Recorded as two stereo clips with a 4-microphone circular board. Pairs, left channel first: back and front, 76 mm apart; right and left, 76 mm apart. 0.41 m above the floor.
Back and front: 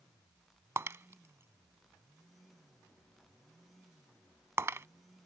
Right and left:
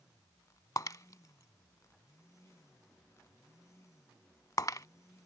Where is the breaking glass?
50° right.